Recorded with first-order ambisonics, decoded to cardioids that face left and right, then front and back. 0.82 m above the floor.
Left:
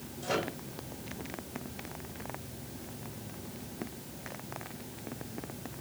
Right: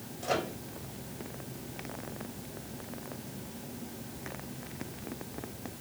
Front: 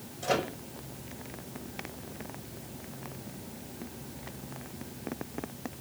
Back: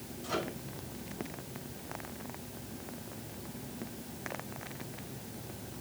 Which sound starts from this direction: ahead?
A microwave, at 0.2 s.